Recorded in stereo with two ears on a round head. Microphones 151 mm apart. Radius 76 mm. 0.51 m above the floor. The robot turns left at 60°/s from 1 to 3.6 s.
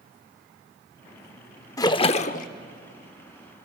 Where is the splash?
155° left, 0.6 m; by 2.5 s 115° left, 0.6 m.